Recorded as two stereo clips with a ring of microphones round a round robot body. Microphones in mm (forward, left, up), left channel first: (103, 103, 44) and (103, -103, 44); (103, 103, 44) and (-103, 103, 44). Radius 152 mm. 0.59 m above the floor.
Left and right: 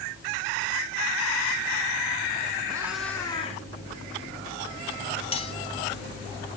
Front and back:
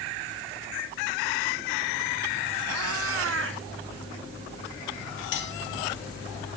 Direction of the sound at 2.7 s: 165° right.